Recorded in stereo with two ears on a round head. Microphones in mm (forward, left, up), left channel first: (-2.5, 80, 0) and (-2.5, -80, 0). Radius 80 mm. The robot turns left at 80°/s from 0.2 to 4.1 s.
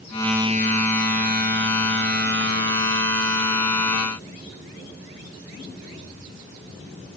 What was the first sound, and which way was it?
Only background noise.